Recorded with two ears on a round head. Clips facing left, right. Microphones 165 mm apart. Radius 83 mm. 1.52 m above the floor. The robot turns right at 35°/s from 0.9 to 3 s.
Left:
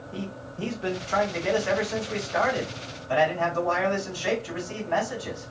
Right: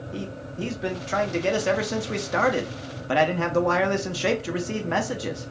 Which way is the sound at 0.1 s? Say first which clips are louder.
Right 2 dB; 160° right.